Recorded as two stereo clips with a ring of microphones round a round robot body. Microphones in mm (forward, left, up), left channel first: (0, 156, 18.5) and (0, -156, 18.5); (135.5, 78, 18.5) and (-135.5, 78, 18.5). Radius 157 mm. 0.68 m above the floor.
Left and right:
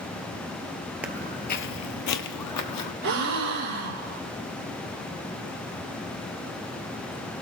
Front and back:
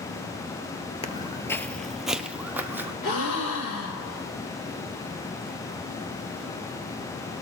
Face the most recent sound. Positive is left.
turn(degrees=-45)